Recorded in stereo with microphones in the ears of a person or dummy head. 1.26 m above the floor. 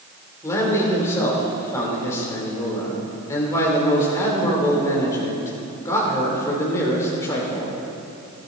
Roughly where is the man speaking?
Centre.